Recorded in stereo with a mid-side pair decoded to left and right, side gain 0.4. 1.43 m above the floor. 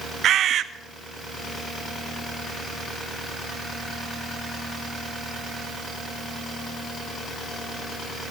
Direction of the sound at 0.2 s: 70° right.